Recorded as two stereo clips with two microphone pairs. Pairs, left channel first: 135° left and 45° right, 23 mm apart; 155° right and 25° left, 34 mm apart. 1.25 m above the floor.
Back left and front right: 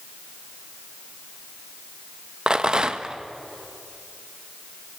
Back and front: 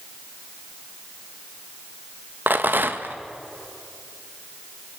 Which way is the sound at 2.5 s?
5° left.